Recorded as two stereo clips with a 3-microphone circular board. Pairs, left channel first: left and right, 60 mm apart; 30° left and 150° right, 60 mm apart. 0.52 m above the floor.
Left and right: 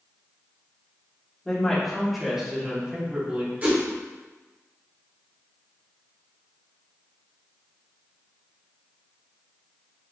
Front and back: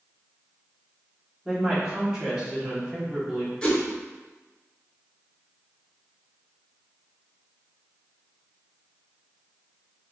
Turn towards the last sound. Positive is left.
turn(degrees=-40)